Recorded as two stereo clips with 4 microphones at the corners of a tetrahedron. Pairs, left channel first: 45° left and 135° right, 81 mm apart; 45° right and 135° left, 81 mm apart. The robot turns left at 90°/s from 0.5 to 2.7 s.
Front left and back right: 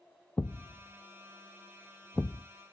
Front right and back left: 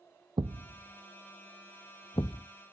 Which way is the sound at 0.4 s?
115° left.